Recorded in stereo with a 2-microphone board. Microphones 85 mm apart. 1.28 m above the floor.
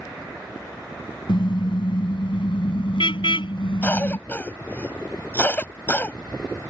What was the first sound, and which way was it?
A car horn, 70° left (ahead or behind).